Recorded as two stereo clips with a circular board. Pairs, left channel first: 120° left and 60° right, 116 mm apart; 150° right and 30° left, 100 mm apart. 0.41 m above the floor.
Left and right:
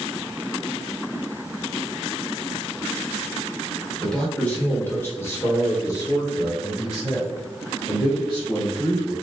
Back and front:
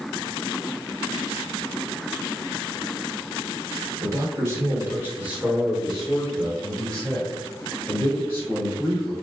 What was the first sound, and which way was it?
A man speaking, 40° left.